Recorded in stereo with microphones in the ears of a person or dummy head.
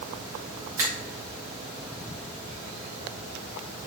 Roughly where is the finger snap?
Centre.